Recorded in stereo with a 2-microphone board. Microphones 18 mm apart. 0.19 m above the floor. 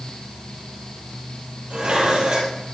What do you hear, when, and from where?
1.7 s dishes clattering: 75° right (ahead or behind), 4 m